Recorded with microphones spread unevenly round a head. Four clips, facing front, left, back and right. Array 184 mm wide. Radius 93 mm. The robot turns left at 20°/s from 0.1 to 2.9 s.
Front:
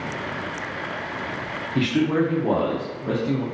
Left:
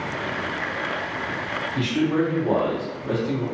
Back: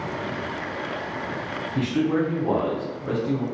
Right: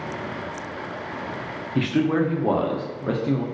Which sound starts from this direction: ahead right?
A man speaking, at 1.8 s.